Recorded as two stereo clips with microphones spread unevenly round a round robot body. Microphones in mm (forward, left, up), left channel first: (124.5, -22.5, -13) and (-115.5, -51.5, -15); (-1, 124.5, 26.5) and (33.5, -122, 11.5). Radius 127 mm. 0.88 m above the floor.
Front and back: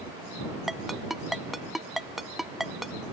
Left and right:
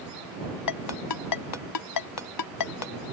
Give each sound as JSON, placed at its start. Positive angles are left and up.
{"t": 0.7, "sound": "a ringtone", "azimuth_deg": 100}